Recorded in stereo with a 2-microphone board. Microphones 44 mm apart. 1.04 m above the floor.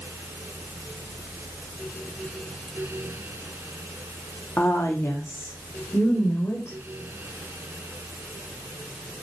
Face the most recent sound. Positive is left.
turn(degrees=70)  # may be behind; listen again after turning